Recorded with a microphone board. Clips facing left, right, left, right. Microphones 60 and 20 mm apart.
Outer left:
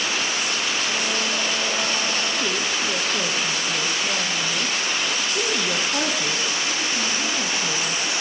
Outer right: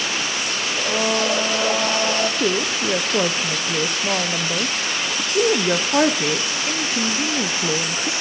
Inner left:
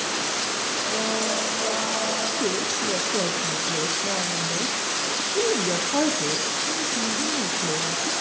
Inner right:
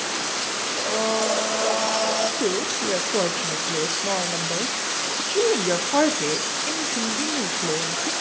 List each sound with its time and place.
0.8 s a blender: 80° right, 2 m
2.4 s a woman speaking: 45° right (ahead or behind), 0.8 m